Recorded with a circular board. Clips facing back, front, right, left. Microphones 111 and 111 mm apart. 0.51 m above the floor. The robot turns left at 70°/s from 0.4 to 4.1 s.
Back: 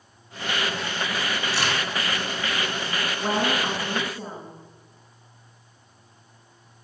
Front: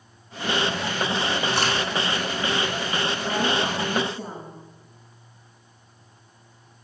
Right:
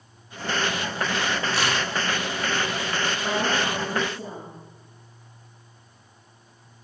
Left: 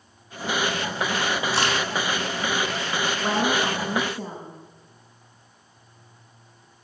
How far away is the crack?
About 4.5 m.